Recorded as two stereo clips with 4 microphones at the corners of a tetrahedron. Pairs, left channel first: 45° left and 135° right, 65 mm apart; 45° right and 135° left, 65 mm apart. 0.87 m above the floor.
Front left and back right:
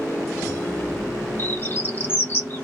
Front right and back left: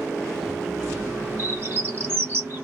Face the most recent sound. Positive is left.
turn(degrees=95)